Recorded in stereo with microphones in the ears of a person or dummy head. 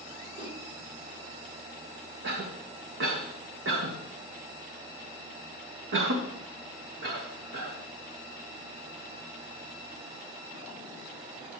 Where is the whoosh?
25° right (ahead or behind), 2 m.